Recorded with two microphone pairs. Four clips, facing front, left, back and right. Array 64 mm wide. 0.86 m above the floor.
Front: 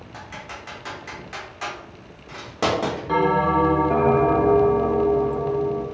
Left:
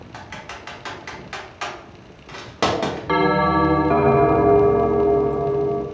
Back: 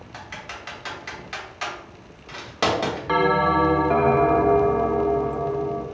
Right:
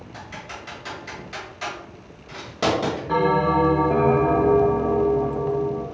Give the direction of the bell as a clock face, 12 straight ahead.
8 o'clock.